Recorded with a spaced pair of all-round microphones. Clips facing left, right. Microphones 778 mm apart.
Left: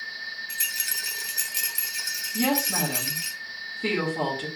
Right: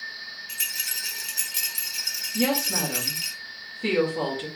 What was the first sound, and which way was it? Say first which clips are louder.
A rattle: left 2 dB; 60° right (ahead or behind).